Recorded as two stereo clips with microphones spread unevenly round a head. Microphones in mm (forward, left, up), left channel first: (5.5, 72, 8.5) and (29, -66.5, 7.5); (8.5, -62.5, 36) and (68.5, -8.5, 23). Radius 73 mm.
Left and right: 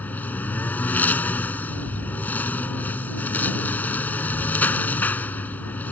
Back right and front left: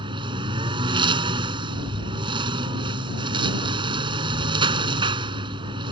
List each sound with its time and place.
0.0 s a lawn mower: 20° left